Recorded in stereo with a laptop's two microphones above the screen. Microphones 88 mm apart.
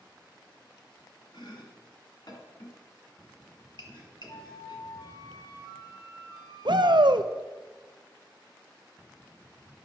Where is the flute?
65° left (ahead or behind), 1.5 m.